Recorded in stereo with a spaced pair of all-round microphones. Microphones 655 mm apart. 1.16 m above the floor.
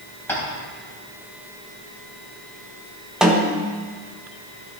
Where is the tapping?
5° left (ahead or behind), 3 m.